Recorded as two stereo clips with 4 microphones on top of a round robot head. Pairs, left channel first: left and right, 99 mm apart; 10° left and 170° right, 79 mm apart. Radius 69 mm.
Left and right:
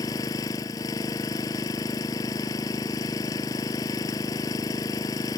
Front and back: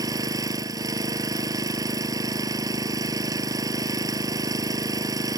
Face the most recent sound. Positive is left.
turn(degrees=150)